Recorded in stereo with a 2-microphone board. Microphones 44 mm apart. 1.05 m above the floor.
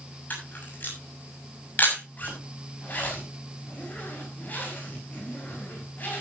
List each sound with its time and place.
0.3 s a camera shutter: 45° left (ahead or behind), 7 m
2.2 s a zipper: 40° left (ahead or behind), 6 m